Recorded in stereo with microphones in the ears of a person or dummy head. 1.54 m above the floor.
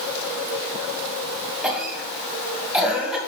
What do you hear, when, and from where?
1.6 s a cough: 5° left (ahead or behind), 2 m